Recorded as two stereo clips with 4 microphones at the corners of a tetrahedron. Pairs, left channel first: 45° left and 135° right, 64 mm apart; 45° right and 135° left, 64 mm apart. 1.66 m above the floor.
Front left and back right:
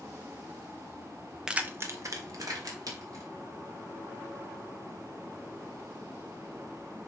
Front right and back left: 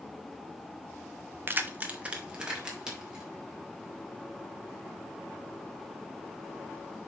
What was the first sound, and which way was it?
Keys jangling, 155° left.